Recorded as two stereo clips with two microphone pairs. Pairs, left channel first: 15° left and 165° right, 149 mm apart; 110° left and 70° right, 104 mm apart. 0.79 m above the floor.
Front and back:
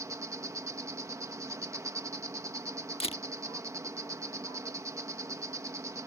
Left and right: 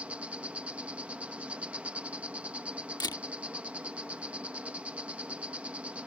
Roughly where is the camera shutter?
Ahead left.